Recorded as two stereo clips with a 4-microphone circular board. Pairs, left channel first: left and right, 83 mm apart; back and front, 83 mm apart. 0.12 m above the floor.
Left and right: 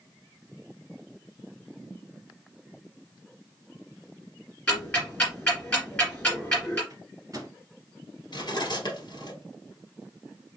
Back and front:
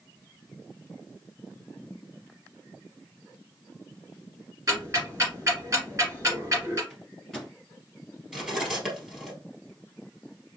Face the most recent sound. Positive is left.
turn(degrees=85)